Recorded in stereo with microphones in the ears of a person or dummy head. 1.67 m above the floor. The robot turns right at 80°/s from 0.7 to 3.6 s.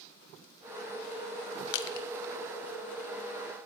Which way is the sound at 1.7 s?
70° left (ahead or behind).